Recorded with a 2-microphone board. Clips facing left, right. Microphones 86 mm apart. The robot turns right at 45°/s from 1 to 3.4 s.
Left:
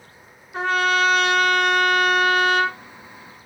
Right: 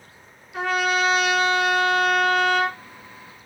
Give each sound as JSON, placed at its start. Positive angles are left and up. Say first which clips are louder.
{"t": 0.5, "sound": "a trumpet", "louder": "left 2 dB", "azimuth_deg": 35, "distance_m": 1.2}